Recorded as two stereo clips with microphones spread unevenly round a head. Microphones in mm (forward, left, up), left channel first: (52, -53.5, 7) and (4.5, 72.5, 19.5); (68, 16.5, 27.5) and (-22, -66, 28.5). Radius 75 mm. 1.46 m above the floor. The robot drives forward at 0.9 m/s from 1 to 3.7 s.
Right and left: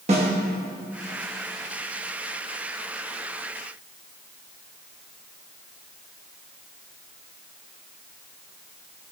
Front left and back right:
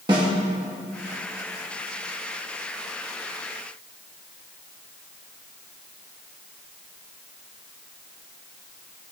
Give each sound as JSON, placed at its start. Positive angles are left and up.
{"t": 0.1, "sound": "a snare drum", "azimuth_deg": 160, "distance_m": 1.5}